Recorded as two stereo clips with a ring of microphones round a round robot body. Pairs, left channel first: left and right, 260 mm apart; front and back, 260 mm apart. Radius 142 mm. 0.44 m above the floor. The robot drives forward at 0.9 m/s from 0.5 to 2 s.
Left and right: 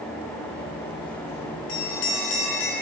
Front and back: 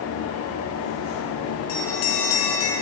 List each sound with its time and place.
1.7 s a bell: 40° left, 5.5 m